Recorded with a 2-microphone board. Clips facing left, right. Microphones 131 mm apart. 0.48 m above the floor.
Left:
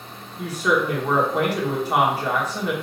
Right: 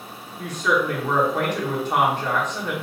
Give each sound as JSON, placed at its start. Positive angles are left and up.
{"t": 0.4, "sound": "a woman speaking", "side_deg": 10, "distance_m": 0.9}